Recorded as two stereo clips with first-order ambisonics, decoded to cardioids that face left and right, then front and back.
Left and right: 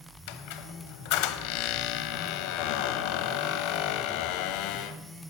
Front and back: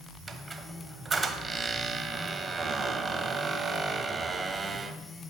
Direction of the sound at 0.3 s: 105° left.